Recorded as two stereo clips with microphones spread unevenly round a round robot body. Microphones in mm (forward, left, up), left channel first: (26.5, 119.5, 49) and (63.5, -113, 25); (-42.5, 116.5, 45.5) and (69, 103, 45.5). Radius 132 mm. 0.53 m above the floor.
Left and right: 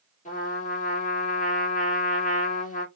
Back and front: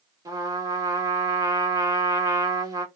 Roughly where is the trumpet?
Ahead left.